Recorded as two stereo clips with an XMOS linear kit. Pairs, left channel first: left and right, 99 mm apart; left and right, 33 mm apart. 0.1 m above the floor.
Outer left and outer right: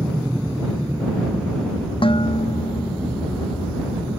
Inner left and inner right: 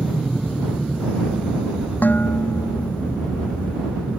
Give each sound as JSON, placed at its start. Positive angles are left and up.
{"t": 0.0, "sound": "an aircraft", "side_deg": -10}
{"t": 2.0, "sound": "dishes clattering", "side_deg": 65}